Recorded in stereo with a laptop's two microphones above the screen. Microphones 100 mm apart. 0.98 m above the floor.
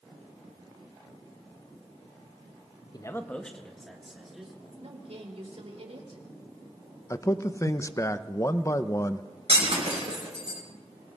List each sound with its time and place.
2.9 s a man speaking: 40° left (ahead or behind), 0.5 m; by 4.5 s 5° right (ahead or behind), 2.5 m
4.7 s a woman speaking: 80° right, 2.5 m
7.1 s a man speaking: 30° left (ahead or behind), 0.6 m
9.5 s breaking glass: 75° right (ahead or behind), 3.5 m